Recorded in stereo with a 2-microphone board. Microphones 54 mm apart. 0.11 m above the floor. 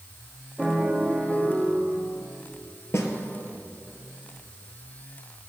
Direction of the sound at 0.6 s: 10° right (ahead or behind).